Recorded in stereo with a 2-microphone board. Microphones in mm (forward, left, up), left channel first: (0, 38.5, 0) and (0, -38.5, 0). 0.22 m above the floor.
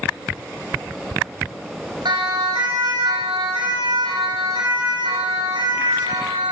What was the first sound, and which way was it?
A siren, 75° right (ahead or behind).